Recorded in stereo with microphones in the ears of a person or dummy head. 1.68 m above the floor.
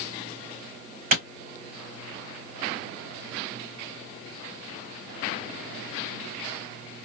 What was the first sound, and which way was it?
A clap, 50° right (ahead or behind).